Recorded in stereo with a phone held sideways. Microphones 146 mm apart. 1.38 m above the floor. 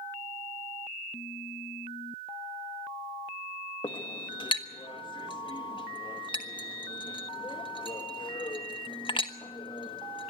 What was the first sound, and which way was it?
A clink, 35° left (ahead or behind).